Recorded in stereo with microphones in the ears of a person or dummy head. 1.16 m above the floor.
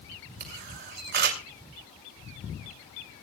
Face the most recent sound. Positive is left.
turn(degrees=-65)  # may be behind; listen again after turning